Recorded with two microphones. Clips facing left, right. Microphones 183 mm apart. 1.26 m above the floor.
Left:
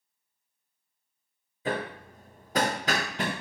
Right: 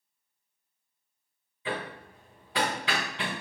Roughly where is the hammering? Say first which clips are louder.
Left 4 dB; left.